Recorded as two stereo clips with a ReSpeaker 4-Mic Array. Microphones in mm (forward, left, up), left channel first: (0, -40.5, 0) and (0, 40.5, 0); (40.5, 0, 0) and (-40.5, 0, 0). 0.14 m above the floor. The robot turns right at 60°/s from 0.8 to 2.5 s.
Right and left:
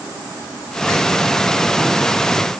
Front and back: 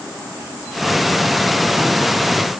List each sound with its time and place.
Only background noise.